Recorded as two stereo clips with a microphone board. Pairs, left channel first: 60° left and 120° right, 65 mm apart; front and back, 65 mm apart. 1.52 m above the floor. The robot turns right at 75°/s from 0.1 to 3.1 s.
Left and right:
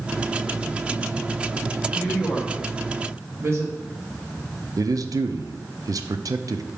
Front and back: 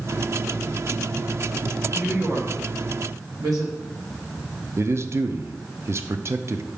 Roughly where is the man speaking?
Behind right.